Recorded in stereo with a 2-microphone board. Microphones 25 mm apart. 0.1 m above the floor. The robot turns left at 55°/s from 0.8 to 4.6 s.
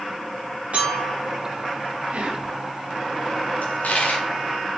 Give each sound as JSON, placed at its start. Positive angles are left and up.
{"t": 0.7, "sound": "a clink", "side_deg": -65, "distance_m": 5.5}
{"t": 2.1, "sound": "whispering", "side_deg": -65, "distance_m": 3.0}
{"t": 3.6, "sound": "a dropped coin", "side_deg": 75, "distance_m": 4.0}